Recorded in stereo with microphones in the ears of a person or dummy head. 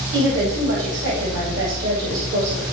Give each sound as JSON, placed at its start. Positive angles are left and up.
{"t": 0.1, "sound": "a woman speaking", "side_deg": -70, "distance_m": 8.5}